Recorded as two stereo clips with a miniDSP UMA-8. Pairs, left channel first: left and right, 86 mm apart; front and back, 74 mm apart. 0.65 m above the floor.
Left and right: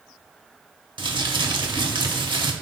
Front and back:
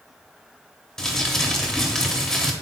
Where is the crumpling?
80° right, 0.7 m.